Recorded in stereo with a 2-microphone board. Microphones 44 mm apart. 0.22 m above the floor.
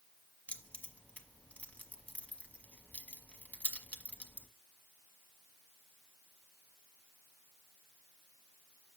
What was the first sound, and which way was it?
Keys jangling, 35° left (ahead or behind).